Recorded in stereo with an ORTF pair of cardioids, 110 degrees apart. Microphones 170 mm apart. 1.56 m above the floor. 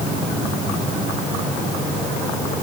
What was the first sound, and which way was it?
Only background noise.